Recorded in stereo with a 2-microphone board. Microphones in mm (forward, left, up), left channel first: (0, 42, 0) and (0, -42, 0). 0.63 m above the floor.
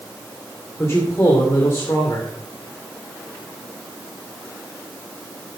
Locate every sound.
0.8 s a man speaking: 30° left (ahead or behind), 2.5 m